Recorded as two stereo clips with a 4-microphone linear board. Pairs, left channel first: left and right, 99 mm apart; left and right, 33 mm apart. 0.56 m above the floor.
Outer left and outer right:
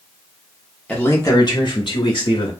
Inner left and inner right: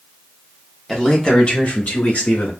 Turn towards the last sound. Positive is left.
turn(degrees=60)  # may be behind; listen again after turning